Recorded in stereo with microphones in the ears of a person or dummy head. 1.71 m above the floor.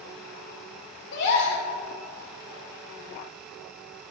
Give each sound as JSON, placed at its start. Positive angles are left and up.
{"t": 1.1, "sound": "a gasp", "side_deg": 65, "distance_m": 2.0}